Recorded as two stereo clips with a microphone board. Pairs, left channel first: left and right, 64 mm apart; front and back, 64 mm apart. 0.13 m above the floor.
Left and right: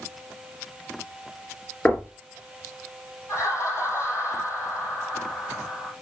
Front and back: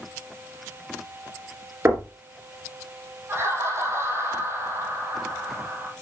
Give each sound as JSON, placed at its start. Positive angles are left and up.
{"t": 1.9, "sound": "knocking", "azimuth_deg": 150, "distance_m": 2.0}
{"t": 3.3, "sound": "laughter", "azimuth_deg": 130, "distance_m": 5.0}